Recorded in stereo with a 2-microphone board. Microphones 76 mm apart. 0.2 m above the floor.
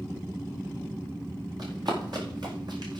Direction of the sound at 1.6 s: 60° right (ahead or behind).